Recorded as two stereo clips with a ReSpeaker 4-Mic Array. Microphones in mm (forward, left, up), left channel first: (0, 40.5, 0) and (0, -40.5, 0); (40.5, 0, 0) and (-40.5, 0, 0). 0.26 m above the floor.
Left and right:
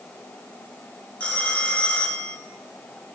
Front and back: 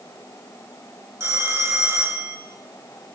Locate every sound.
1.2 s a phone ringing: 150° left, 1.1 m